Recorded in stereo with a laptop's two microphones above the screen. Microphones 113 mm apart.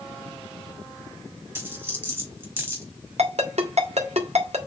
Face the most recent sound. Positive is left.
turn(degrees=-75)  # may be behind; listen again after turning